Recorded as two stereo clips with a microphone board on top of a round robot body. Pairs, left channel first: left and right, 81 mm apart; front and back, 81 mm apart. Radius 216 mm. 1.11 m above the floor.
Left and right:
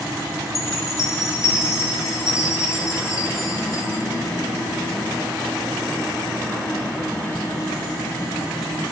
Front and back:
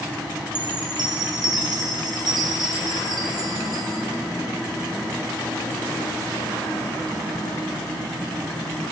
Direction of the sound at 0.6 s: 145° left.